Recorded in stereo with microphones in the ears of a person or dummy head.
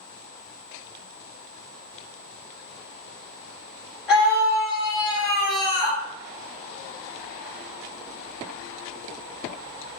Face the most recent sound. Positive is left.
turn(degrees=-5)  # may be behind; listen again after turning